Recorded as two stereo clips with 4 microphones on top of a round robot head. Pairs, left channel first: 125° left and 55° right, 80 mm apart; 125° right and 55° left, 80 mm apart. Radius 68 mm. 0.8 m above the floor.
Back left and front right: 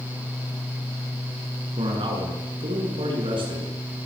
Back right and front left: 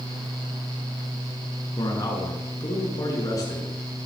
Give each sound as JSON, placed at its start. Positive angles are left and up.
{"t": 1.8, "sound": "a man speaking", "azimuth_deg": -75, "distance_m": 8.5}